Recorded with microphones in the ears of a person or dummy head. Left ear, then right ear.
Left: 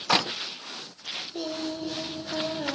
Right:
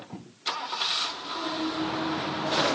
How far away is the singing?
About 0.9 m.